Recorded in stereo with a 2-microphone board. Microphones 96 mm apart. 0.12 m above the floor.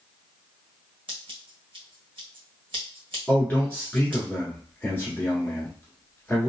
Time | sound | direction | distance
1.1 | scissors | 65° right (ahead or behind) | 1.3 m
3.3 | a man speaking | 20° left (ahead or behind) | 1.4 m